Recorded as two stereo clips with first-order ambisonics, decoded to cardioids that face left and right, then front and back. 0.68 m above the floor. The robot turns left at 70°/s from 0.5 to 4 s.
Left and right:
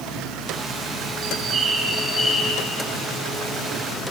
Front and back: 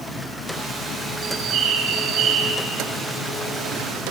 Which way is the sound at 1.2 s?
125° right.